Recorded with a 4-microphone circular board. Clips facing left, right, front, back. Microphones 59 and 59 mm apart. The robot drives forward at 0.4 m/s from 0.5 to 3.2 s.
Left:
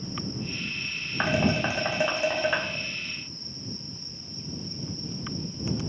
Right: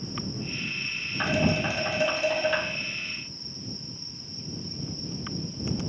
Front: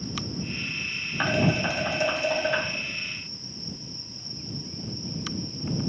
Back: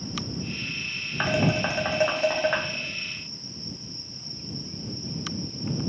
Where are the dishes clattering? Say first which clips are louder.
Left 1 dB, even; 100° left, 0.5 m; by 2.7 s 160° left, 0.8 m.